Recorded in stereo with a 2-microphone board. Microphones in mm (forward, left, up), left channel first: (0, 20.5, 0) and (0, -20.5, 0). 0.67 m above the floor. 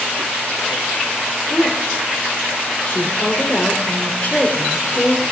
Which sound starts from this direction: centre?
A woman speaking, at 1.5 s.